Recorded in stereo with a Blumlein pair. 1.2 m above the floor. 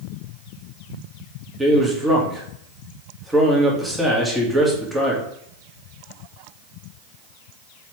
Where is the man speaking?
5° right, 2.5 m.